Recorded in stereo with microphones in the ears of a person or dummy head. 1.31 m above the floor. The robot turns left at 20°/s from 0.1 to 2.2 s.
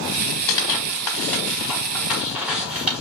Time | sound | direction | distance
0.5 | tearing paper | 20° left (ahead or behind) | 1.2 m